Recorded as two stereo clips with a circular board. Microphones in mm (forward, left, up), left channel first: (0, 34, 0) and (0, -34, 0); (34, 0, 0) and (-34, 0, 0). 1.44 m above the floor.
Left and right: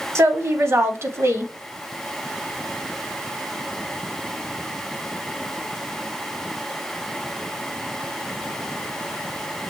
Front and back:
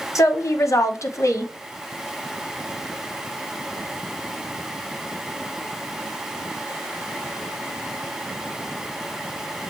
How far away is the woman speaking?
About 0.9 m.